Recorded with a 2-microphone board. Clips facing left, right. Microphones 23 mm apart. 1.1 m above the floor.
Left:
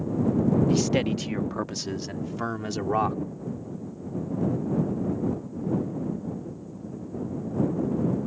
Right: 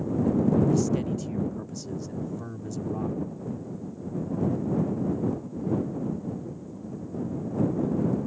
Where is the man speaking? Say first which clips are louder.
Left 2 dB; 80° left; by 3.2 s 85° left.